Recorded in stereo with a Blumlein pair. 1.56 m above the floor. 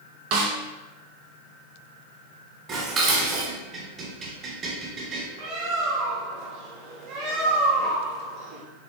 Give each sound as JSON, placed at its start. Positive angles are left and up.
{"t": 0.3, "sound": "a snare drum", "azimuth_deg": -45, "distance_m": 0.9}
{"t": 2.7, "sound": "dishes clattering", "azimuth_deg": -25, "distance_m": 1.9}
{"t": 5.4, "sound": "a bird", "azimuth_deg": -40, "distance_m": 1.4}